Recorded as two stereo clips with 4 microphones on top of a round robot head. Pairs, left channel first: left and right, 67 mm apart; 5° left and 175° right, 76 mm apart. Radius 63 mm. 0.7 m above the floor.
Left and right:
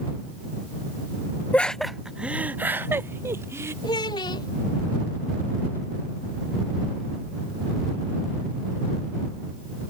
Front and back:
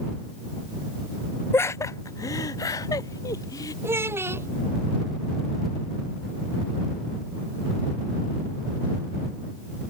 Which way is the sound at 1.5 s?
35° left.